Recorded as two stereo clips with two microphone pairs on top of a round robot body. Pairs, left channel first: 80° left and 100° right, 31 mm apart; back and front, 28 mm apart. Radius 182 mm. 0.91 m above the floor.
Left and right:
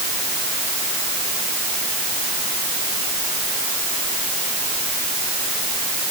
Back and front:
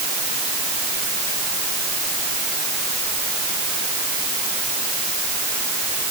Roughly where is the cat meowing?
I don't hear a cat meowing.